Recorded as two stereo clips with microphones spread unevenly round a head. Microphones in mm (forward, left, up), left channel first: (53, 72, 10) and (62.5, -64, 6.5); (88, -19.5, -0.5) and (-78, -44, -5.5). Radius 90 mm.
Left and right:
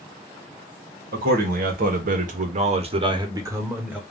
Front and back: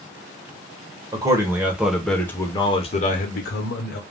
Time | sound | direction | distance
1.1 | a man speaking | 105° right | 1.2 m